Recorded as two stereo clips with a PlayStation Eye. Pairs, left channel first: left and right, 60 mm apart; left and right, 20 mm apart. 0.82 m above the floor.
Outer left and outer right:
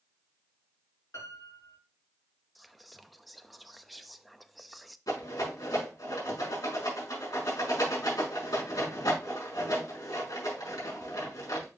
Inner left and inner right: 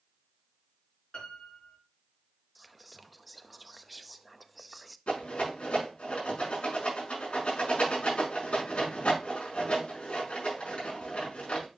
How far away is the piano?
About 6 m.